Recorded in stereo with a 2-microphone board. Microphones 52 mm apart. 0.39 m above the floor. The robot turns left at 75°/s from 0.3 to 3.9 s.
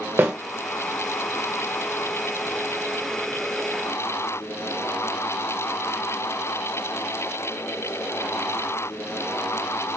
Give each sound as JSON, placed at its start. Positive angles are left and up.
{"t": 0.2, "sound": "a snare drum", "side_deg": -50, "distance_m": 1.2}